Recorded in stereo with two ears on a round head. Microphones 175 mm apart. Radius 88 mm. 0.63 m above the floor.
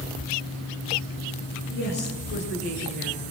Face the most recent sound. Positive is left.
turn(degrees=60)  # may be behind; listen again after turning